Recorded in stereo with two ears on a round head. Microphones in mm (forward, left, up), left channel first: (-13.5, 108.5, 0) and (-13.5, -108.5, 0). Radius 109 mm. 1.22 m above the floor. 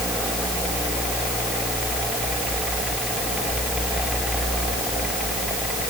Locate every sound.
Only background noise.